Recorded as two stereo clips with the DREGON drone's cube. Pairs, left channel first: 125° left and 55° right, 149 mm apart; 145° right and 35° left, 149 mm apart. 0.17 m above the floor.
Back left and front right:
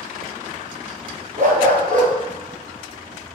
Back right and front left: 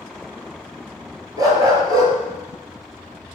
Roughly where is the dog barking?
Ahead right.